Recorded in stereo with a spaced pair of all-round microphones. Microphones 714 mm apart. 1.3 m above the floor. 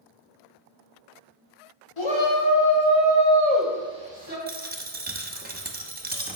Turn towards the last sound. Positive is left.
turn(degrees=-15)  # may be behind; listen again after turning